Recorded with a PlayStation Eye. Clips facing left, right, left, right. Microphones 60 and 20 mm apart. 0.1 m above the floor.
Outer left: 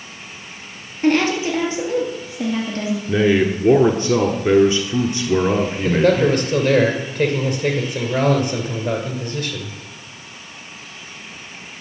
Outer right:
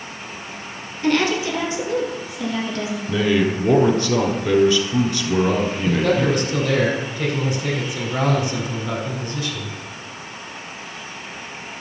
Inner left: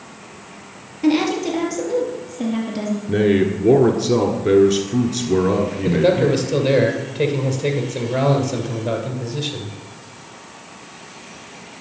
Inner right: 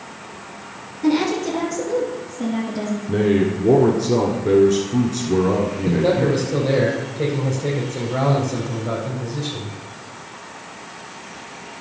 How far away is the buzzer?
No buzzer in this recording.